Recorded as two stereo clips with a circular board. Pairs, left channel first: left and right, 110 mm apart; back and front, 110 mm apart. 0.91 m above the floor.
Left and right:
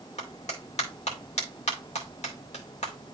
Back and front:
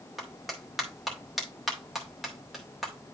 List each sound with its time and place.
0.2 s a clap: 90° left, 2 m